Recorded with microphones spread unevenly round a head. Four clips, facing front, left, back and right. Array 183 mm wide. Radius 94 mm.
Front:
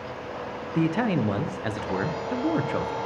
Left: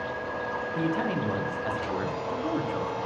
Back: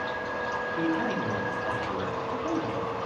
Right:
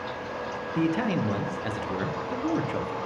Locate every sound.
0.8 s a man speaking: 15° right, 0.9 m